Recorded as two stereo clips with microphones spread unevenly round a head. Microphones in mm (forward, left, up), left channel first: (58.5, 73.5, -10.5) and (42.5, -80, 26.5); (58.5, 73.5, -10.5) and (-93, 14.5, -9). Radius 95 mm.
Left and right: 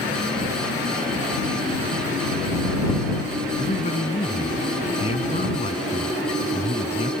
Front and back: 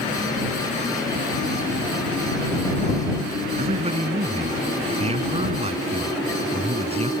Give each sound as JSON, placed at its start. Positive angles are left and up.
{"t": 3.6, "sound": "a man speaking", "azimuth_deg": 150}